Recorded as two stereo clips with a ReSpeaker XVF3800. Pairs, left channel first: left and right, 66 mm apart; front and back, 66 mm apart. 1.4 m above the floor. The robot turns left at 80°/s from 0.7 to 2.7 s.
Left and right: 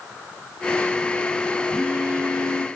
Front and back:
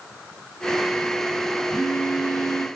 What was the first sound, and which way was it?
A phone buzzing, 5° left.